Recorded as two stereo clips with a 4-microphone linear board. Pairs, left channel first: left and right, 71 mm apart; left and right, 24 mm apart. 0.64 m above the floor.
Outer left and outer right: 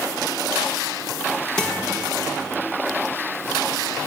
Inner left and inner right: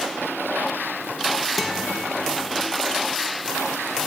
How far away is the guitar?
About 1.7 m.